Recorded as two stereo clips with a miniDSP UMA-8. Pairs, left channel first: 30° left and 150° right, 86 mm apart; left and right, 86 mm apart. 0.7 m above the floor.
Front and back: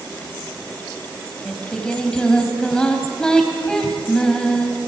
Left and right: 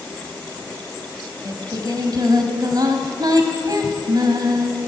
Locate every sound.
1.4 s singing: 50° right, 3 m